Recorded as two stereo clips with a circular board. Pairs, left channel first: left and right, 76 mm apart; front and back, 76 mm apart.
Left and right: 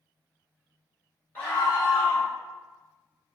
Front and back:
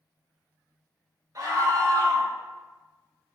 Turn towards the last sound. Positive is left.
turn(degrees=155)